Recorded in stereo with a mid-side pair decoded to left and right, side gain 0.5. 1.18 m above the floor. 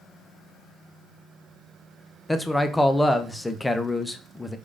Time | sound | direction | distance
2.3 | a man speaking | 10° left | 0.6 m